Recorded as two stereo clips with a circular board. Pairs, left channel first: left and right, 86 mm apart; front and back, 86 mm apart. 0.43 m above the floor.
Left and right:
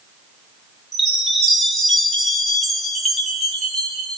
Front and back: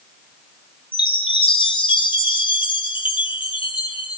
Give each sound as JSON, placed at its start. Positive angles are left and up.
{"t": 0.9, "sound": "a chime", "azimuth_deg": 5, "distance_m": 2.0}